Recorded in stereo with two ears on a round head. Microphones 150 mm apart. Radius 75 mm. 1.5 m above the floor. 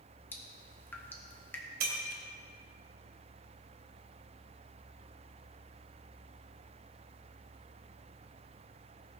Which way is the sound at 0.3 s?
10° left (ahead or behind).